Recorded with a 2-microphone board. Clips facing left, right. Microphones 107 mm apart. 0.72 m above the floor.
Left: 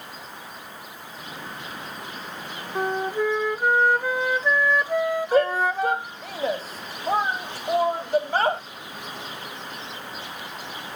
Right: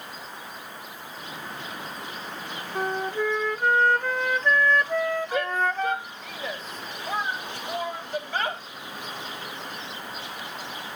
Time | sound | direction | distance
2.8 | a flute | 10° left (ahead or behind) | ?
5.3 | a shout | 40° left (ahead or behind) | ?